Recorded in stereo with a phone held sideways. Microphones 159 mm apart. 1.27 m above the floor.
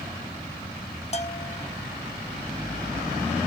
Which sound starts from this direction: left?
A bell, at 1.1 s.